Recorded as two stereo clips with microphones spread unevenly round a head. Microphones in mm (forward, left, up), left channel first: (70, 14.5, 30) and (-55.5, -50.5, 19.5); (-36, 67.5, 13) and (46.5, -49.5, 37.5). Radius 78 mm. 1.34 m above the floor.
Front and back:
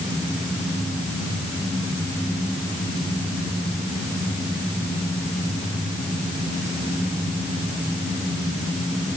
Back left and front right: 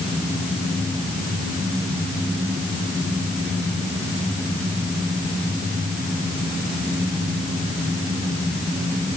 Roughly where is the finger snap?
No finger snap in this recording.